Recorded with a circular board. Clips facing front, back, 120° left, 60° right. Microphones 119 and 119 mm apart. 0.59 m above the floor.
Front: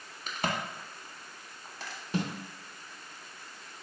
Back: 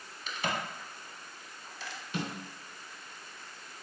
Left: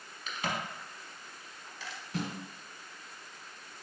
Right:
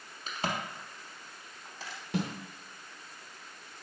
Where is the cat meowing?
No cat meowing in this recording.